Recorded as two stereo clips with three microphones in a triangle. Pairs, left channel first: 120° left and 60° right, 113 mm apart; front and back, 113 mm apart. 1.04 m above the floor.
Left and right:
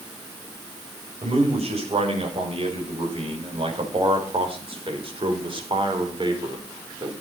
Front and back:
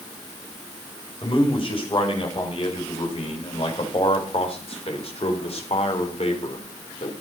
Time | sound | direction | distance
1.2 | a man speaking | 35° right | 6.5 m